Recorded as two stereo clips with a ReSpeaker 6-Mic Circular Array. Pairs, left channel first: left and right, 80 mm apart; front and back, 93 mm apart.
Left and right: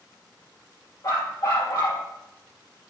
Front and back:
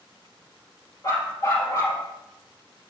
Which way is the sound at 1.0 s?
55° left.